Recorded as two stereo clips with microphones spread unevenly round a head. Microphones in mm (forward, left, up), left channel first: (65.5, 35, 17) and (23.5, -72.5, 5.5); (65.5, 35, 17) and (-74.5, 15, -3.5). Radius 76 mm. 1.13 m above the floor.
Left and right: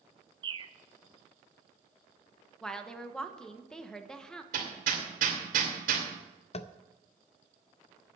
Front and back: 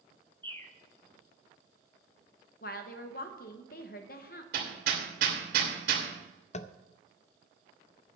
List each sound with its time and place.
0.4 s a bird: 60° right, 0.7 m
2.6 s a woman speaking: 20° right, 1.3 m
4.5 s hammering: 135° right, 2.5 m
6.5 s tapping: 45° left, 0.6 m